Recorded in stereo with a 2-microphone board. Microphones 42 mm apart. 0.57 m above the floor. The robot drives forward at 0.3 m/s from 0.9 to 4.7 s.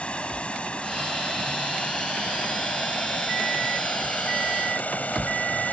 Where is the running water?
30° left (ahead or behind); by 5.7 s 40° left (ahead or behind).